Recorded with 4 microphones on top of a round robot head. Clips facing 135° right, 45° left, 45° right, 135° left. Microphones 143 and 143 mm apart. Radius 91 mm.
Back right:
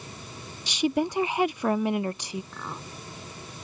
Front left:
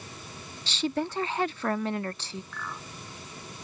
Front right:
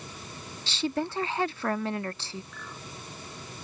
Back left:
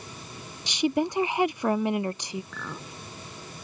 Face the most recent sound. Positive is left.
turn(degrees=160)